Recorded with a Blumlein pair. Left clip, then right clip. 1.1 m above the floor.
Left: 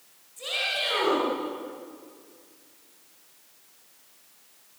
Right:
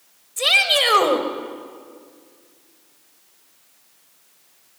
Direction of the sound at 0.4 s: 50° right.